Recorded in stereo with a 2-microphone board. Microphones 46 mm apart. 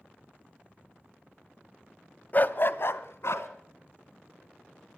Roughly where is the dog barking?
Left.